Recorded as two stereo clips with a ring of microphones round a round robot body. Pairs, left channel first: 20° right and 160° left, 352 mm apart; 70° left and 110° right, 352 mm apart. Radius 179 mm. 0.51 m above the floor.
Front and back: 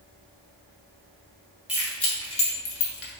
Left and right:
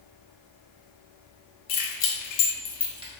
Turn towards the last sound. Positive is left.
turn(degrees=-50)